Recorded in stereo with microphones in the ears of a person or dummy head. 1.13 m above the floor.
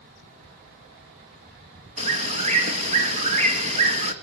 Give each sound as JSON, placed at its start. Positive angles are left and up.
{"t": 2.0, "sound": "a bird", "side_deg": -35, "distance_m": 2.0}